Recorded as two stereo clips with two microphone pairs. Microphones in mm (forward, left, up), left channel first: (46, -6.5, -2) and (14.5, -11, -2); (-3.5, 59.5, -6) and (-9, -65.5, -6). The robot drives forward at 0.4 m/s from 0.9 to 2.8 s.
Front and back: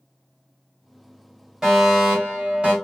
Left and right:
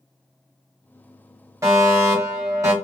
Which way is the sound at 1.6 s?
115° right.